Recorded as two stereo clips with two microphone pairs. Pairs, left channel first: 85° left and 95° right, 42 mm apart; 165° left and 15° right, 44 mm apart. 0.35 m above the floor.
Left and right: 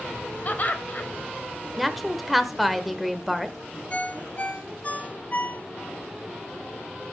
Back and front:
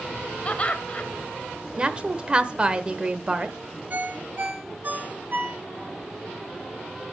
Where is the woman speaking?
10° right, 0.8 m.